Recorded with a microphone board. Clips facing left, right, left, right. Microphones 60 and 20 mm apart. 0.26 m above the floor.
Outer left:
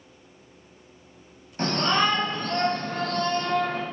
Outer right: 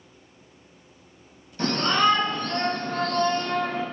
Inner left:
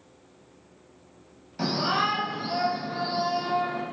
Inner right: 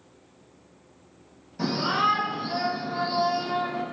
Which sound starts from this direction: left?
A shout, at 1.6 s.